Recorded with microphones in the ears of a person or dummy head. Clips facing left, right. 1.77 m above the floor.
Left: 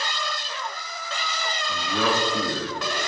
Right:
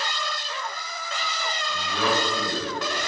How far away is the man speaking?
About 2 m.